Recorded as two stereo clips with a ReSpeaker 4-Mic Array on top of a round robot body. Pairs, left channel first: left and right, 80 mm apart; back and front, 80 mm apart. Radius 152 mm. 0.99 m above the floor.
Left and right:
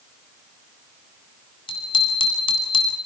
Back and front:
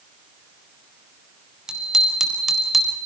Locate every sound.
1.7 s a bicycle bell: 80° left, 5 m; by 3.0 s 90° left, 3.5 m